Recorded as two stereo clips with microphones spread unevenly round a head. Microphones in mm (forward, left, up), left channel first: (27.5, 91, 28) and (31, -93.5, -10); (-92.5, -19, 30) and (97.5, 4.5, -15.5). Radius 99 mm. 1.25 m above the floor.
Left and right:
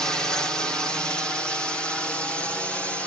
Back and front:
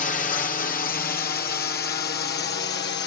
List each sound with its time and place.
0.0 s a drone: 165° right; by 3.1 s 175° right